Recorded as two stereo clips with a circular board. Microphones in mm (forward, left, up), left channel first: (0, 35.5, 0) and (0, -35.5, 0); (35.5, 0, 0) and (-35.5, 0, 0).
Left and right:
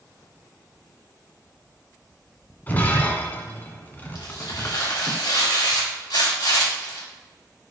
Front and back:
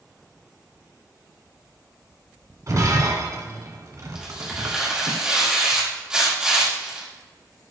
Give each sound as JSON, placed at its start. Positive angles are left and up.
{"t": 2.7, "sound": "breaking glass", "azimuth_deg": 150, "distance_m": 1.2}
{"t": 4.2, "sound": "tearing paper", "azimuth_deg": 100, "distance_m": 2.0}